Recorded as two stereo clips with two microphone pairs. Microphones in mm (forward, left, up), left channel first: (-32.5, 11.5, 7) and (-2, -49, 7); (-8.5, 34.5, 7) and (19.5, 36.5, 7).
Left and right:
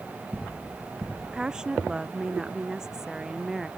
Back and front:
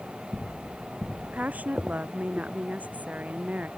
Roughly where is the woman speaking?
Ahead.